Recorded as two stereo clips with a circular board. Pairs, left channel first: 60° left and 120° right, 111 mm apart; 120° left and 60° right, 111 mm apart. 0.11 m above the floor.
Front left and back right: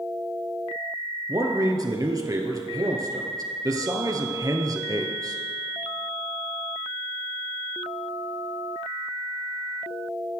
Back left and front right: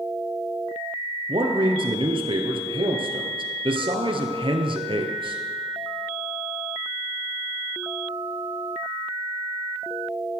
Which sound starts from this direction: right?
A man speaking, at 1.3 s.